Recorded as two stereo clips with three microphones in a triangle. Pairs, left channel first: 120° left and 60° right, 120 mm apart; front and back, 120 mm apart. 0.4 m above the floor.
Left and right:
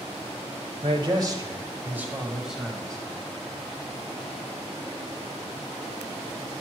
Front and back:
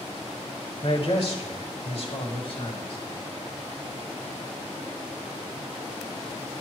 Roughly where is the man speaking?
Ahead right.